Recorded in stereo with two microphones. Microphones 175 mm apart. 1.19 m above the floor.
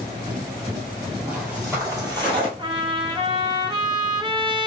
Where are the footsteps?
10° right (ahead or behind), 2.5 m; by 2.5 s 30° right (ahead or behind), 1.9 m.